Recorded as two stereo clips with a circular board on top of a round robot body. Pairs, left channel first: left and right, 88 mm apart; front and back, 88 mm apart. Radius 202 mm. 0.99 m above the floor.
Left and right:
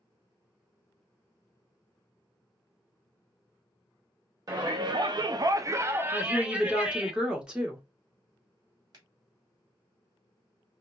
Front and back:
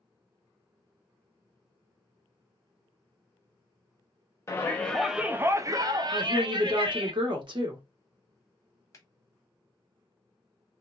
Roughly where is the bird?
I don't hear a bird.